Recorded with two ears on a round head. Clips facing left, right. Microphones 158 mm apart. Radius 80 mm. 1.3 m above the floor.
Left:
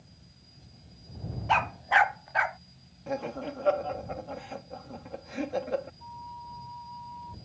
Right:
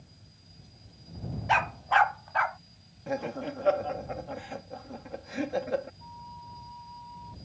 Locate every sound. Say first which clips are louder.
1.5 s a dog barking: even; 10° right (ahead or behind); by 2.6 s 25° left (ahead or behind)
3.1 s laughter: right 1 dB; 5° right (ahead or behind)
6.0 s a flute: left 2 dB; 15° right (ahead or behind)